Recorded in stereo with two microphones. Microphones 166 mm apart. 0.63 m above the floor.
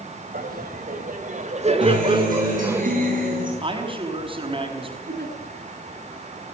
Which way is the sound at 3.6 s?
30° right (ahead or behind).